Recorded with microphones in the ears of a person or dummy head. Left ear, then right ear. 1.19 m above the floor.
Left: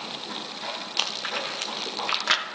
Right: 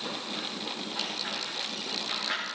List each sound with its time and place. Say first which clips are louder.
1.0 s chewing: left 6 dB; 55° left (ahead or behind), 0.8 m